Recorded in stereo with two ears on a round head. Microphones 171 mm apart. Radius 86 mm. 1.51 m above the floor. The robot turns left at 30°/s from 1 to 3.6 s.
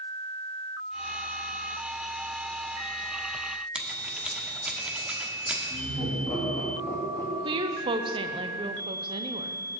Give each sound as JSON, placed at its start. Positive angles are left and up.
{"t": 3.8, "sound": "scissors", "side_deg": -5, "distance_m": 1.1}
{"t": 5.7, "sound": "laughter", "side_deg": 10, "distance_m": 3.0}
{"t": 7.5, "sound": "a woman speaking", "side_deg": -25, "distance_m": 0.7}